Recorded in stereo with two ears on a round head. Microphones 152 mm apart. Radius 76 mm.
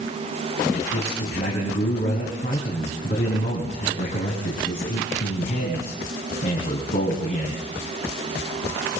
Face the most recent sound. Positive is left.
turn(degrees=45)  # may be behind; listen again after turning